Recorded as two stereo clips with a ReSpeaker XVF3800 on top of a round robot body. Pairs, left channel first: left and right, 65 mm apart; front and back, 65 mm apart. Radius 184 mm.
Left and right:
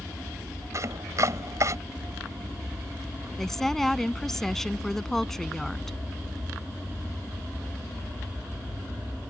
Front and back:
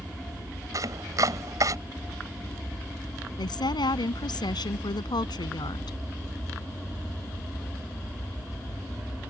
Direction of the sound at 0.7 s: 145° right.